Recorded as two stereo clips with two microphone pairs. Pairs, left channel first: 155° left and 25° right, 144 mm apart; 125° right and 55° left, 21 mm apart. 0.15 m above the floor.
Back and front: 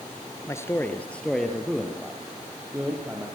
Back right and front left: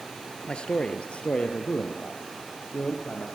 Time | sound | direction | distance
0.5 | a man speaking | 140° right | 2.5 m